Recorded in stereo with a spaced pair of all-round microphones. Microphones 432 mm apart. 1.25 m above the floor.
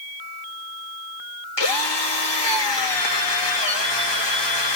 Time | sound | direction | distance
1.6 | a drill | 75° left (ahead or behind) | 1.4 m